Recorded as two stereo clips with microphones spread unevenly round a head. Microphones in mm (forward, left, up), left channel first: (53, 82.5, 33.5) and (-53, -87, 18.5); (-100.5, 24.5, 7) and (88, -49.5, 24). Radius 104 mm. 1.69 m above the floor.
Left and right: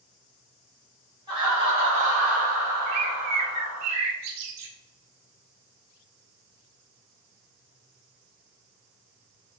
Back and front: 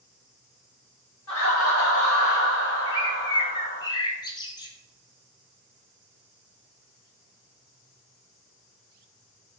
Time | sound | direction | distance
1.3 | laughter | 170° left | 1.8 m
2.9 | a bird | 130° right | 0.5 m